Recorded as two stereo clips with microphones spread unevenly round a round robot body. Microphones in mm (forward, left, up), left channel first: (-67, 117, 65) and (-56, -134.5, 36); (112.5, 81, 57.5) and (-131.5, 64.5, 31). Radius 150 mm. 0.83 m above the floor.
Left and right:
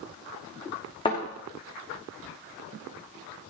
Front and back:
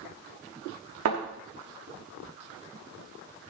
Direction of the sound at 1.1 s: 160° left.